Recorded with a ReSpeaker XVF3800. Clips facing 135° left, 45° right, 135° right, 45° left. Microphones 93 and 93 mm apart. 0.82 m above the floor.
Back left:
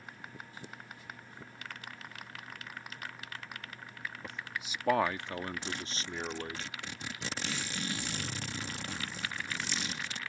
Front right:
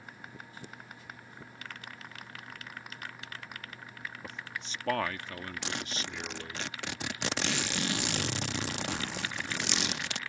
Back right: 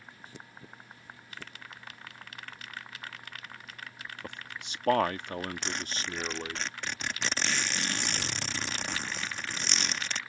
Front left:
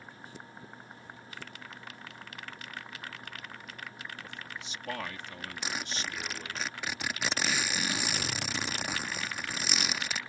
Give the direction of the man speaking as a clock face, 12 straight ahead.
4 o'clock.